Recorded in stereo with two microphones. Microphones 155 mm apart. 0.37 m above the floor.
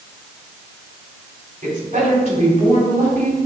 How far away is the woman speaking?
About 3 m.